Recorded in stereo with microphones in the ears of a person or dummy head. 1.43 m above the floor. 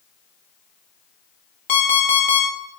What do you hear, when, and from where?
1.7 s an alarm clock: 40° left (ahead or behind), 1.0 m